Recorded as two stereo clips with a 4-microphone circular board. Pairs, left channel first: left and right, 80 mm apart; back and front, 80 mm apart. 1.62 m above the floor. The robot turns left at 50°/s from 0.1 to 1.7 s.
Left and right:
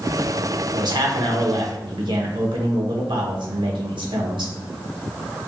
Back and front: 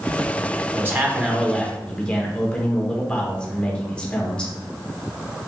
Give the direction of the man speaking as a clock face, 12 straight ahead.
2 o'clock.